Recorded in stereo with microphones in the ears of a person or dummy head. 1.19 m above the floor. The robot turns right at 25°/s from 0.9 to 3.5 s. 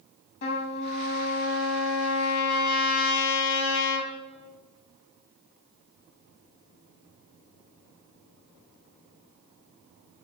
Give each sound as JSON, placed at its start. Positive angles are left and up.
{"t": 0.4, "sound": "a trumpet", "azimuth_deg": 50, "distance_m": 1.0}